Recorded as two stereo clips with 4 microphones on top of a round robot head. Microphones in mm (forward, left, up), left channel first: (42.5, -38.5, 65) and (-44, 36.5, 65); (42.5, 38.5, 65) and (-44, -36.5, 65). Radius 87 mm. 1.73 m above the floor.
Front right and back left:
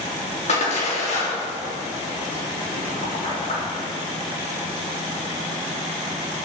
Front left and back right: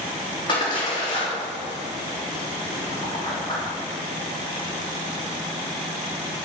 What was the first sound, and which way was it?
A splash, 10° right.